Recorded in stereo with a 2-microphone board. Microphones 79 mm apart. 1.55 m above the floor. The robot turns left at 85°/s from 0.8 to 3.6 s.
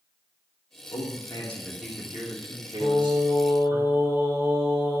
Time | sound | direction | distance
0.9 | a man speaking | 75° left | 2.5 m
2.8 | singing | 85° right | 4 m